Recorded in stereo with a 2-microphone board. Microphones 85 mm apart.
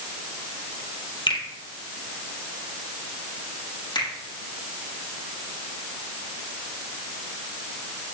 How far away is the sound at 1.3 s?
About 3.5 m.